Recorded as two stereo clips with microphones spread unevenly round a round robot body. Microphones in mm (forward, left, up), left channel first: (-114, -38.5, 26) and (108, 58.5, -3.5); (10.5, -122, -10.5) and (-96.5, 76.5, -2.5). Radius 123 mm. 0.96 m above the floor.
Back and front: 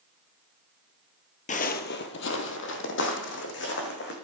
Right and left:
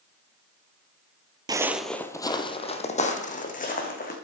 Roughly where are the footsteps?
Behind.